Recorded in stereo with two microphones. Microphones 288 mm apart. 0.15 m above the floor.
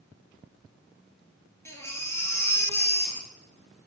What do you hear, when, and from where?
1.6 s a baby crying: 10° left (ahead or behind), 1.6 m